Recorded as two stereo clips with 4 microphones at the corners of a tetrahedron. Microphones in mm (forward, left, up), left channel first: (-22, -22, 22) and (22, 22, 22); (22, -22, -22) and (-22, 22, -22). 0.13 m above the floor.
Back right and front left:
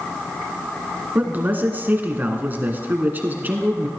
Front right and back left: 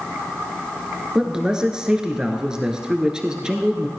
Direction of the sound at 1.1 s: 70° left.